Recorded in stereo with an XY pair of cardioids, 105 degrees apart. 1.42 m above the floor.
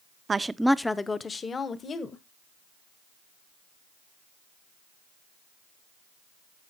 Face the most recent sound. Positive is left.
turn(degrees=45)